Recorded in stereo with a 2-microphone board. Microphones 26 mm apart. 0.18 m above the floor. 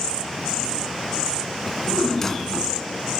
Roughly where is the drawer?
Centre.